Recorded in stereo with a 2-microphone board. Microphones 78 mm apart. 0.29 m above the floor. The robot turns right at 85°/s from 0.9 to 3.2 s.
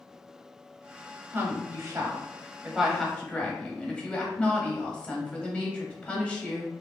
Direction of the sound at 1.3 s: 135° right.